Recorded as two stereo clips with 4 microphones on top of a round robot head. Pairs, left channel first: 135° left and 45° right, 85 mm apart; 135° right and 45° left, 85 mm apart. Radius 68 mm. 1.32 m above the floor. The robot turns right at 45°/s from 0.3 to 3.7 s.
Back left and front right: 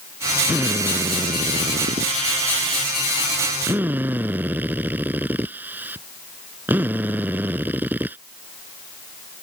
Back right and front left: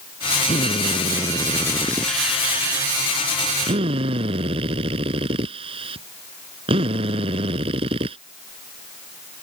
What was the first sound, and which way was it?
A drill, 120° right.